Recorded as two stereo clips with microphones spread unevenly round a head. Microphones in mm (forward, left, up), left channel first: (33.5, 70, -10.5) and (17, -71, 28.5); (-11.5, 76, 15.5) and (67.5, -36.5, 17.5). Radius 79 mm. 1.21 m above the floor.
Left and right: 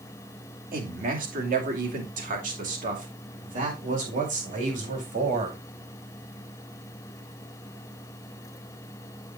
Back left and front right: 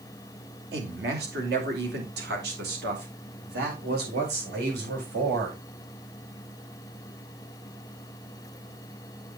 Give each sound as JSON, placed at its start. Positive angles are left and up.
{"t": 0.7, "sound": "a man speaking", "azimuth_deg": -70, "distance_m": 2.5}